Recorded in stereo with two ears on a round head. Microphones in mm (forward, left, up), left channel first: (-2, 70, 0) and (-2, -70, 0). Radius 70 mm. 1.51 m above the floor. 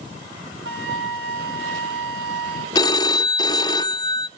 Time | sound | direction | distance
0.7 | a flute | 75° right (ahead or behind) | 2.5 m
2.8 | a phone ringing | 25° left (ahead or behind) | 0.6 m